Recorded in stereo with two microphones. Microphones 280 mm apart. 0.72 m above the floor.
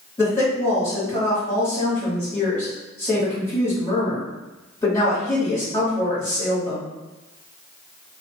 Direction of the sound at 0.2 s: 15° left (ahead or behind).